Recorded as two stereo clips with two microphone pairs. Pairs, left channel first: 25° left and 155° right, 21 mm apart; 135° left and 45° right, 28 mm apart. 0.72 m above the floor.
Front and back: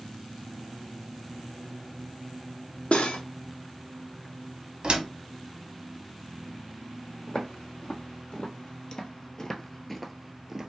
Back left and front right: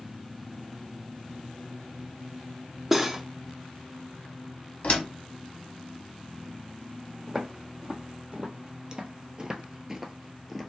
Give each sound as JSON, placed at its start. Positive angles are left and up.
{"t": 2.9, "sound": "cutlery clinking", "azimuth_deg": 35, "distance_m": 0.6}
{"t": 4.8, "sound": "a door slam", "azimuth_deg": 170, "distance_m": 1.1}
{"t": 7.3, "sound": "footsteps", "azimuth_deg": 15, "distance_m": 1.6}